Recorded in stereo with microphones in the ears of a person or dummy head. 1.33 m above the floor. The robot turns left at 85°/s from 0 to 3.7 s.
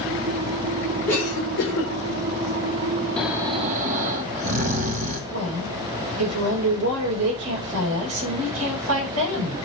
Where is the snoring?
5° left, 1.5 m; by 5.2 s 45° right, 1.5 m.